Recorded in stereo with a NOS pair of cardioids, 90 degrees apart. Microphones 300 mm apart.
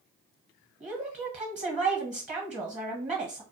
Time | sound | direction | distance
0.8 | a woman speaking | 25° right | 1.0 m